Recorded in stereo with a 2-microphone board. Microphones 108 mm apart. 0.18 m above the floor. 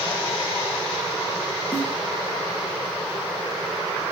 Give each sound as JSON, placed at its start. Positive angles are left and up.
{"t": 1.7, "sound": "a snare drum", "side_deg": 30, "distance_m": 8.5}